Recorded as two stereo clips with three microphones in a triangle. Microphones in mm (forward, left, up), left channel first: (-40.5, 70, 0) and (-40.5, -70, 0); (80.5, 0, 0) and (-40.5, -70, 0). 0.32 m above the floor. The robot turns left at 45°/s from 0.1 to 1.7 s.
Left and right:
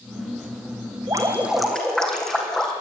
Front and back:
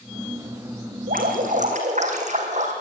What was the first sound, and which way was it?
Dripping, 155° right.